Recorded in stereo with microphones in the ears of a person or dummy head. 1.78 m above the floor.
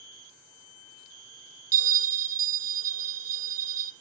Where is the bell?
45° right (ahead or behind), 1.2 m.